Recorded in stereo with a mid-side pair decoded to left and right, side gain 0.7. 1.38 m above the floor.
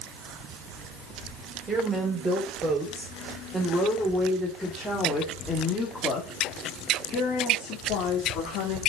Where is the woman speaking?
15° right, 4 m; by 8.8 s 65° left, 2.5 m.